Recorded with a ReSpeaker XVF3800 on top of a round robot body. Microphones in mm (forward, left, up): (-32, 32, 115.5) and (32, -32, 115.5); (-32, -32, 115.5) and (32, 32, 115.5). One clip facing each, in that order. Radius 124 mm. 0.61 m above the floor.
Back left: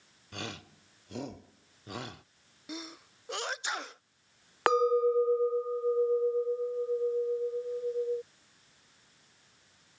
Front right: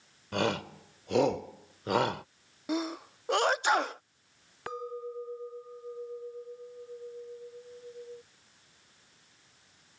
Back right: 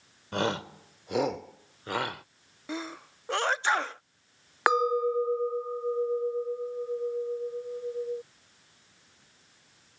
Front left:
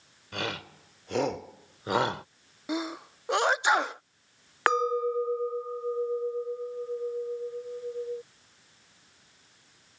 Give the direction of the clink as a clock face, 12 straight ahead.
7 o'clock.